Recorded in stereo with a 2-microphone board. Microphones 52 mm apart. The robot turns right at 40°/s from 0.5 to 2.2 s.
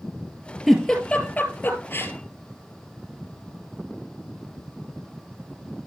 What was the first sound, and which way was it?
A giggle, 5° left (ahead or behind).